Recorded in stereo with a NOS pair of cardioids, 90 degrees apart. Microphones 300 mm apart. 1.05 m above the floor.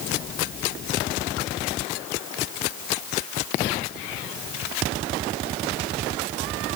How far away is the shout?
No shout in this recording.